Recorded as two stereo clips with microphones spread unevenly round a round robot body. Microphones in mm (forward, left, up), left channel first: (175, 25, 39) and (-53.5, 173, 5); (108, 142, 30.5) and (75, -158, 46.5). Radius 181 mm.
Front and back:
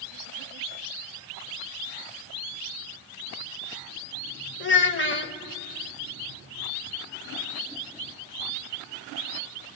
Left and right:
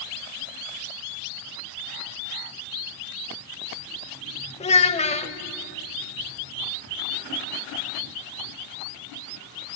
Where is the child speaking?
15° left, 1.3 m.